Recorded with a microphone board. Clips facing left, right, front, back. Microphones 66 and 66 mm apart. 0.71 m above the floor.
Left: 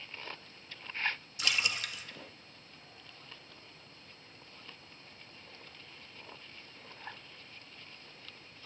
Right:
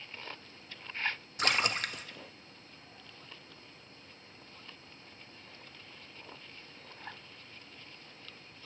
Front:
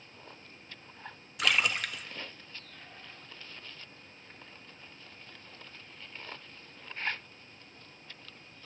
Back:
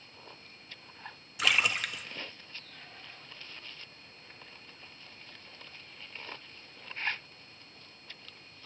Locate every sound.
1.4 s a splash: 90° right, 0.6 m